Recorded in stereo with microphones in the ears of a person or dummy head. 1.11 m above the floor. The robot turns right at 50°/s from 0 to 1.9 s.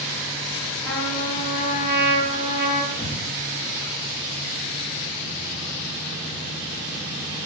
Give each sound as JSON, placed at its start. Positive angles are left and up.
{"t": 0.8, "sound": "a trumpet", "azimuth_deg": 10, "distance_m": 6.5}
{"t": 2.9, "sound": "breathing", "side_deg": 20, "distance_m": 5.5}